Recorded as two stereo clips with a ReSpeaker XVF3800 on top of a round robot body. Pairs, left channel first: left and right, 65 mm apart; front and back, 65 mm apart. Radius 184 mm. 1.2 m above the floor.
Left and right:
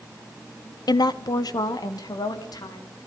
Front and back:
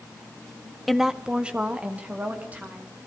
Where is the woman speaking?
90° left, 0.9 m; by 3.1 s 115° left, 4 m.